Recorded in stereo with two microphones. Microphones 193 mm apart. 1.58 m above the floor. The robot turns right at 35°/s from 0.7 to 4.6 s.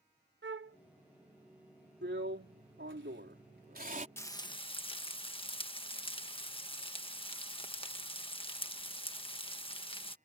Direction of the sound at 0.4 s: 75° right (ahead or behind).